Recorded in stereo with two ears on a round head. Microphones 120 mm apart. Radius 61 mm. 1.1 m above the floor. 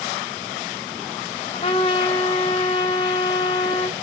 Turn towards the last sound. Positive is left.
turn(degrees=40)  # may be behind; listen again after turning